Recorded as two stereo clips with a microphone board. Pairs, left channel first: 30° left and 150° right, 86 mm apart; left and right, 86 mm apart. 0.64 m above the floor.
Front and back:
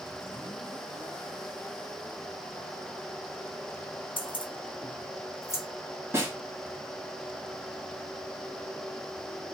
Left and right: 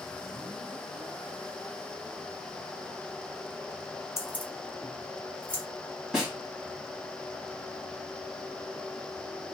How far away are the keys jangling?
About 0.6 m.